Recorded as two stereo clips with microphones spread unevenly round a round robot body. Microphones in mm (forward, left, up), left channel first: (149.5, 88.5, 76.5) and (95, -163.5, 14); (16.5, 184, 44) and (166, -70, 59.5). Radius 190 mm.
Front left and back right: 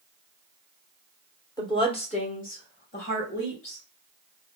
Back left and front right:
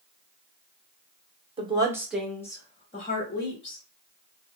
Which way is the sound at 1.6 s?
10° right.